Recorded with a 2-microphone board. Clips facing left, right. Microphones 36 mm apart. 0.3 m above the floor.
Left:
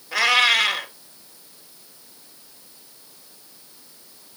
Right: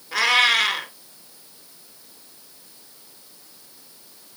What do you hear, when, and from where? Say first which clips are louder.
0.1 s a cat meowing: even; centre (ahead or behind), 1.6 m